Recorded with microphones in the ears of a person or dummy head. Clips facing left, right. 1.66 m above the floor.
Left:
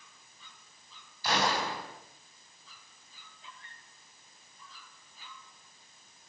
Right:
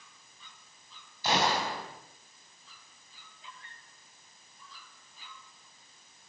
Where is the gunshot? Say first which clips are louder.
Right 1 dB; 25° right (ahead or behind), 4 m.